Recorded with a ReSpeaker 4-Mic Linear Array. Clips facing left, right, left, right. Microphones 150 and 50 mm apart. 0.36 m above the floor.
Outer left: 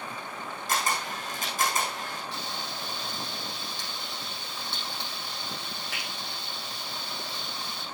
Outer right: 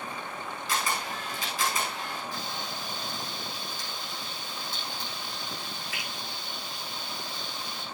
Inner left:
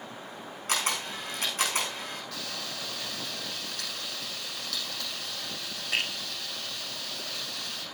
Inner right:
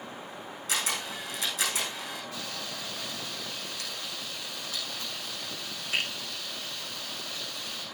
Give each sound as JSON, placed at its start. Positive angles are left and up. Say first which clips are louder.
{"t": 0.7, "sound": "a camera shutter", "louder": "outer left 2 dB, inner left 2 dB", "side_deg": 45, "distance_m": 7.5}
{"t": 2.3, "sound": "frying", "louder": "even, even", "side_deg": 65, "distance_m": 6.5}